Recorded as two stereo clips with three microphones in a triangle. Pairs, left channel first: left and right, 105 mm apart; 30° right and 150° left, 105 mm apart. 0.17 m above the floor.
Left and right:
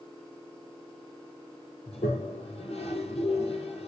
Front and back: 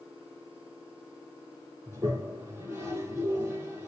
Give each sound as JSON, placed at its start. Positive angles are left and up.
{"t": 1.9, "sound": "a toilet flushing", "azimuth_deg": 85, "distance_m": 3.0}